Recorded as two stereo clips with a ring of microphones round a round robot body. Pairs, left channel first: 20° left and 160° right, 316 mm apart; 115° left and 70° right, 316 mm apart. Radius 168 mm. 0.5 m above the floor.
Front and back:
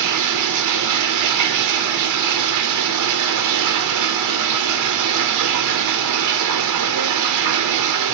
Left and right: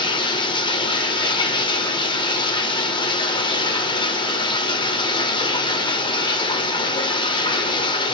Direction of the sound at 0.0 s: 175° right.